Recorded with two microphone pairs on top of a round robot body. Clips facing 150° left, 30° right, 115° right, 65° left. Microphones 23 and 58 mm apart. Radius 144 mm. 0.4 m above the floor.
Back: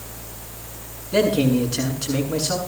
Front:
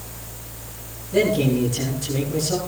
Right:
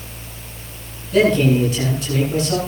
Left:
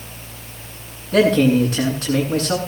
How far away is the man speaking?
About 8 m.